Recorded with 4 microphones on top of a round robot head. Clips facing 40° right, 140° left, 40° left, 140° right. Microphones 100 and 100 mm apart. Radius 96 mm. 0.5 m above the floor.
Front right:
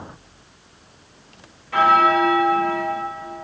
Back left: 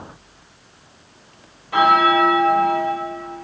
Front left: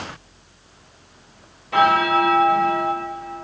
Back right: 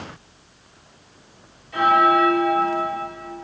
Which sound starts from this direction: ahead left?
A bell, at 1.7 s.